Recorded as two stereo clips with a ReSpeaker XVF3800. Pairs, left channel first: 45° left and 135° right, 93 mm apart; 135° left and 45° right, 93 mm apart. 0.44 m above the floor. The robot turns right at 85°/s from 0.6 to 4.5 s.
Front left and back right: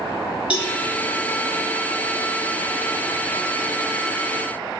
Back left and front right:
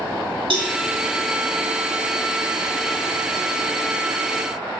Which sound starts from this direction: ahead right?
A cowbell, at 0.5 s.